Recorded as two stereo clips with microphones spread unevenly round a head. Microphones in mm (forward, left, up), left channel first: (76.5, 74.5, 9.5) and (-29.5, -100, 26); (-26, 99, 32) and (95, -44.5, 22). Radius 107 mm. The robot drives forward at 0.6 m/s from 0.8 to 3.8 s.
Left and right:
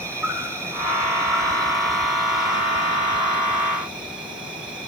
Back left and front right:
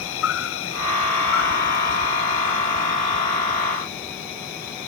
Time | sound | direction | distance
0.0 | an insect | 160° left | 3 m